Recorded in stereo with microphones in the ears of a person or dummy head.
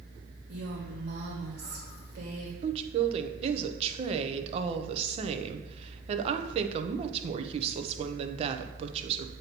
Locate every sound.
0.5 s a woman speaking: 45° right (ahead or behind), 1.3 m
2.6 s a woman speaking: 35° right (ahead or behind), 0.7 m